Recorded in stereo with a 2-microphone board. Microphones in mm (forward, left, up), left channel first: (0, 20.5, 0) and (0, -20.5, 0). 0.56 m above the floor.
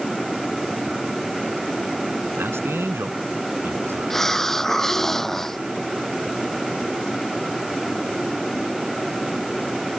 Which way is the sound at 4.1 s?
5° left (ahead or behind).